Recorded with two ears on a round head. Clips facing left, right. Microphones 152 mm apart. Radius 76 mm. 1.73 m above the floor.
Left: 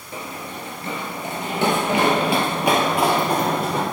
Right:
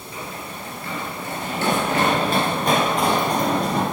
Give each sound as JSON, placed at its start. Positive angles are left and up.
{"t": 0.1, "sound": "running footsteps", "side_deg": 25, "distance_m": 2.0}